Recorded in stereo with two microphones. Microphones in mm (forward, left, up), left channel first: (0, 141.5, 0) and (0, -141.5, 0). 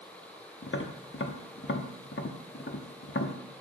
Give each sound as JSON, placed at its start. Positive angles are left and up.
{"t": 0.6, "sound": "tapping", "side_deg": 45, "distance_m": 0.9}